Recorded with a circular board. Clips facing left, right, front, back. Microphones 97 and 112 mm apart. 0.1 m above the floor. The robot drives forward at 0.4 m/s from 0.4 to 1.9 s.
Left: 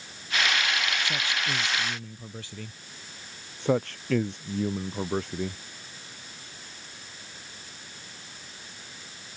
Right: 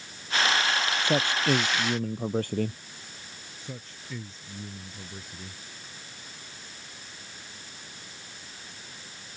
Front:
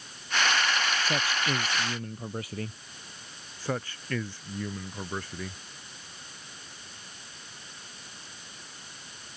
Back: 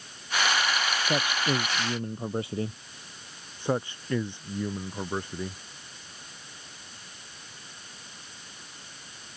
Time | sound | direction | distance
1.0 | a man speaking | 110° right | ?
3.6 | a man speaking | 110° left | ?